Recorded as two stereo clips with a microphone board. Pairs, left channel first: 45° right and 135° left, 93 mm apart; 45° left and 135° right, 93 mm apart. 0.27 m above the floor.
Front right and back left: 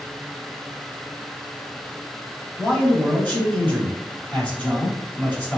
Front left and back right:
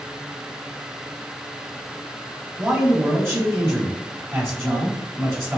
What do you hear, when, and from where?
2.6 s a man speaking: 100° right, 1.4 m